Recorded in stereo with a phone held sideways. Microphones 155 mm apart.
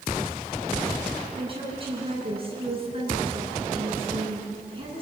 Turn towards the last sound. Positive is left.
turn(degrees=-35)  # may be behind; listen again after turning